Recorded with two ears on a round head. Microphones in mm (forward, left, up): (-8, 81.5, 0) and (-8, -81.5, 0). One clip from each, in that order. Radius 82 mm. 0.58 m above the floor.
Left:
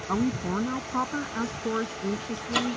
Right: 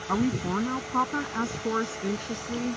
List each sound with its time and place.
0.1 s a woman speaking: 10° right (ahead or behind); by 2.8 s 25° right (ahead or behind)